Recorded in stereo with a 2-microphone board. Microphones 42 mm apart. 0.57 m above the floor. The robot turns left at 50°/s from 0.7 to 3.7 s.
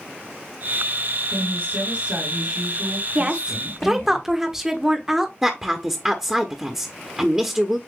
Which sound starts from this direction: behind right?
A woman speaking, at 1.3 s.